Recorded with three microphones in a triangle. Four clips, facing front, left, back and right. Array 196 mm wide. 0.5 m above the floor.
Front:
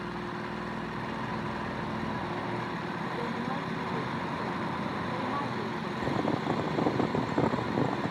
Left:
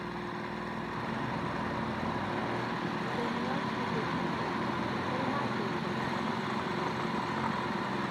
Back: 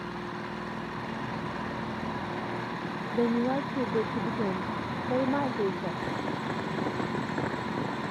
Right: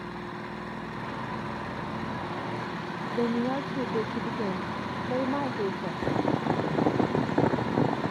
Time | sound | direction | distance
3.1 | a woman speaking | 145° right | ?
6.0 | boiling | 75° right | ?